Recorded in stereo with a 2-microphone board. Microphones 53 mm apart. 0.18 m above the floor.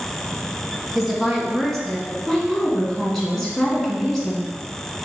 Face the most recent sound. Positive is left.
turn(degrees=0)  # may be behind; listen again after turning